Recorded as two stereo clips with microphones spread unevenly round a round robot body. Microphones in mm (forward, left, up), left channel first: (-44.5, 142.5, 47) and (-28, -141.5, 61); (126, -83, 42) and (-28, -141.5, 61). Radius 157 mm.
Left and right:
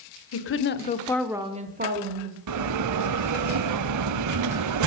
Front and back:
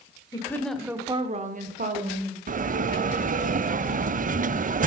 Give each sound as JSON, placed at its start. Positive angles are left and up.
{"t": 0.3, "sound": "a woman speaking", "azimuth_deg": 80, "distance_m": 1.4}
{"t": 2.5, "sound": "a bell", "azimuth_deg": -115, "distance_m": 0.6}